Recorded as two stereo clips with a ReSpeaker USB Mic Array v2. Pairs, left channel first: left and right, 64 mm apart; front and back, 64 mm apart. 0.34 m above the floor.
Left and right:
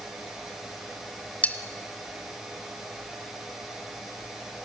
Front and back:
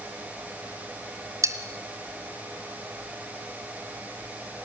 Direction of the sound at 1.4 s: 155° left.